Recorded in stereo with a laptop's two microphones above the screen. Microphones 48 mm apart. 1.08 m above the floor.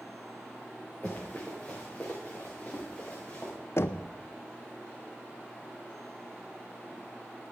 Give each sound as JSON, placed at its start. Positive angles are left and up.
{"t": 1.0, "sound": "running footsteps", "side_deg": 30, "distance_m": 6.5}
{"t": 3.8, "sound": "knocking", "side_deg": 60, "distance_m": 0.6}